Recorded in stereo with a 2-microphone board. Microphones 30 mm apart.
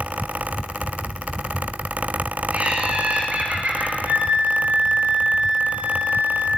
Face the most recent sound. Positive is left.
turn(degrees=-60)  # may be behind; listen again after turning